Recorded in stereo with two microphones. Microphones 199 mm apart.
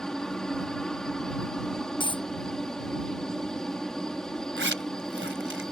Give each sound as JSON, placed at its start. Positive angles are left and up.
{"t": 0.0, "sound": "a helicopter", "side_deg": 5}
{"t": 2.0, "sound": "a dropped coin", "side_deg": 25}
{"t": 4.6, "sound": "a zipper", "side_deg": -75}